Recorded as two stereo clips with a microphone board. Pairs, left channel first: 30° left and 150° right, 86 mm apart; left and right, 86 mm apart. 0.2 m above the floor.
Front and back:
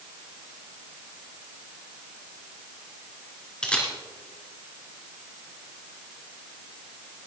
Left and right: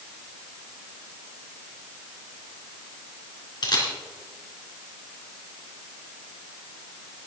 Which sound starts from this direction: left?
A camera shutter, at 3.6 s.